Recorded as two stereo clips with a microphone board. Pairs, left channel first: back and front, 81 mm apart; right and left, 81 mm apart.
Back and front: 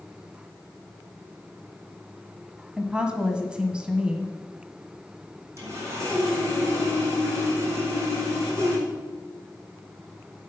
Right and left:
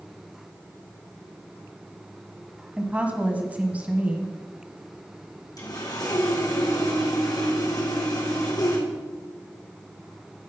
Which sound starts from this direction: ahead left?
A woman speaking, at 2.8 s.